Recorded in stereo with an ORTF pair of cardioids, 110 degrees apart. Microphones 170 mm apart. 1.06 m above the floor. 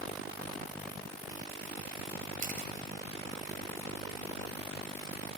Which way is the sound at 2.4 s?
55° right.